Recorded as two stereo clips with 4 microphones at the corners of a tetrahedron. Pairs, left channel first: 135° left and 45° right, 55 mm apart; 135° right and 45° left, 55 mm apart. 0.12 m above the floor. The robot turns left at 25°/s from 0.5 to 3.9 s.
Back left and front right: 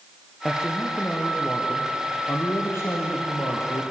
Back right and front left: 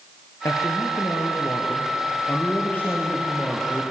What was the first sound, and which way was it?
A man speaking, 135° right.